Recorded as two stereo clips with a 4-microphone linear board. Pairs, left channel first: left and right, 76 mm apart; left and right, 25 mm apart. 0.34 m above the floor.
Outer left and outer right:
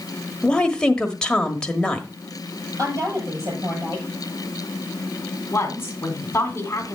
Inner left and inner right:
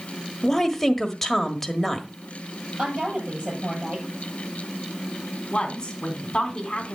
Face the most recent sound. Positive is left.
turn(degrees=35)  # may be behind; listen again after turning